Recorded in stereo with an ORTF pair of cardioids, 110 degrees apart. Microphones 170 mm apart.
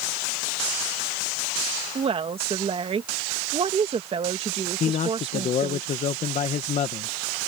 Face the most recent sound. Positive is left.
turn(degrees=45)